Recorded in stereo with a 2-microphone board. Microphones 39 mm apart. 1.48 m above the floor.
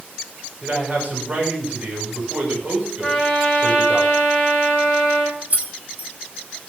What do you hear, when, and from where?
0.6 s a man speaking: 40° right (ahead or behind), 6 m
3.0 s a trumpet: centre (ahead or behind), 7.5 m
5.5 s keys jangling: 45° right (ahead or behind), 1.8 m